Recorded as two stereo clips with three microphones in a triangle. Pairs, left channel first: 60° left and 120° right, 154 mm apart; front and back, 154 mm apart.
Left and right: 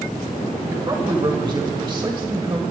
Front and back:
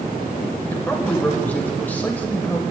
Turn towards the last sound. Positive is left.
turn(degrees=-75)